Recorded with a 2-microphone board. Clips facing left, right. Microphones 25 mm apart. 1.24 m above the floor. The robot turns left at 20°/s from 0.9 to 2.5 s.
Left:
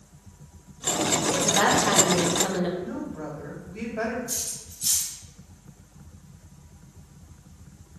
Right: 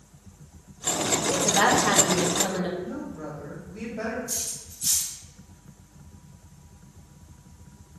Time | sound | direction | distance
1.3 | a woman speaking | 15° right (ahead or behind) | 1.2 m
2.8 | a woman speaking | 65° left (ahead or behind) | 3 m
4.3 | cutlery clinking | 45° left (ahead or behind) | 2.5 m